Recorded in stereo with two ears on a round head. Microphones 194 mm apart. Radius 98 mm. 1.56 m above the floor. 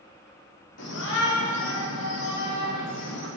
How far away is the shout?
About 5.5 m.